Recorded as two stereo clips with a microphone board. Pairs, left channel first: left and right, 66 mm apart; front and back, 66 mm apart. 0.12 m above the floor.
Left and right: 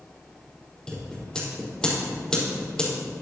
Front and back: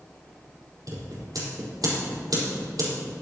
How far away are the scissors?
About 4.5 m.